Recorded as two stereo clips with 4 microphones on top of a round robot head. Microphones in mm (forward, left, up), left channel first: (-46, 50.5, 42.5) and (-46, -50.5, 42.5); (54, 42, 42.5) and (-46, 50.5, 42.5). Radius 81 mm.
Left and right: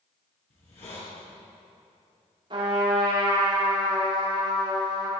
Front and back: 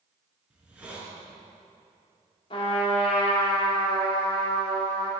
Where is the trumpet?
45° right, 2.5 m.